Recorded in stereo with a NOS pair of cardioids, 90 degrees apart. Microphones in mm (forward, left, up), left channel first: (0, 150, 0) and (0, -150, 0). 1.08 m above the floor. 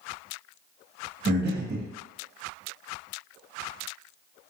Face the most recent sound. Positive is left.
turn(degrees=-35)